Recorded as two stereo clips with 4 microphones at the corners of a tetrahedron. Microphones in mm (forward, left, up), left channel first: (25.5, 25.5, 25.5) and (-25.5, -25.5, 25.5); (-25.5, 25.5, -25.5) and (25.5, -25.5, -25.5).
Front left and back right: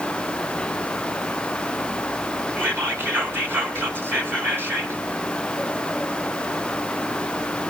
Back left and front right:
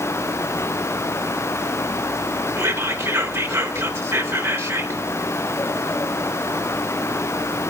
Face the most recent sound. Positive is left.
turn(degrees=-90)